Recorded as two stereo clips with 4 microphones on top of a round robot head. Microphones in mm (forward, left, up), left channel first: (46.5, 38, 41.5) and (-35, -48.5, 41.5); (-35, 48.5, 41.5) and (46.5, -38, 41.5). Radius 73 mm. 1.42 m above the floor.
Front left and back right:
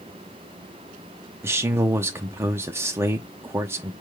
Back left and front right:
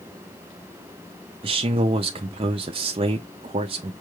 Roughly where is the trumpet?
No trumpet in this recording.